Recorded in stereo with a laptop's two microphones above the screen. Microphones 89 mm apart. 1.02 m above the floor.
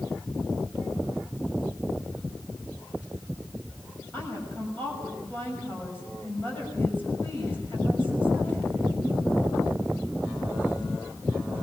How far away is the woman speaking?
About 7 m.